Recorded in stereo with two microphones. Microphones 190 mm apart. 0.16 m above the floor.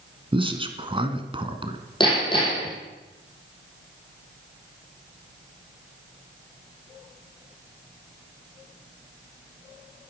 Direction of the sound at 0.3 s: 25° right (ahead or behind).